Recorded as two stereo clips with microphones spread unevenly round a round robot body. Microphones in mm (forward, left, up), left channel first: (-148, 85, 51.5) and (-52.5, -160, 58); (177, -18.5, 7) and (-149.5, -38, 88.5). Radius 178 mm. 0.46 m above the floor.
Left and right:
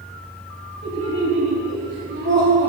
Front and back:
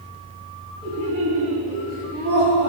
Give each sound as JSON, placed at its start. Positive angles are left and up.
{"t": 0.8, "sound": "laughter", "azimuth_deg": -95, "distance_m": 4.0}